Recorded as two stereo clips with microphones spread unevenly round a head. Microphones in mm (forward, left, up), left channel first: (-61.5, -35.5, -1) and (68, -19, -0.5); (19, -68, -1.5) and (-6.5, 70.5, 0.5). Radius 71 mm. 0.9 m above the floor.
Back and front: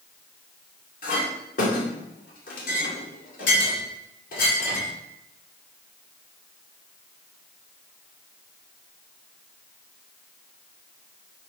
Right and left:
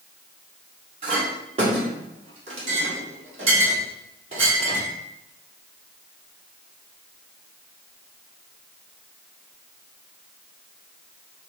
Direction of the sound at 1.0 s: 150° left.